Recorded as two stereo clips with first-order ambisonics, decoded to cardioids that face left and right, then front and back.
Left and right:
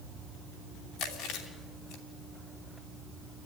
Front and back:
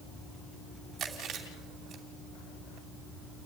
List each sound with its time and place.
1.0 s chewing: 120° left, 3 m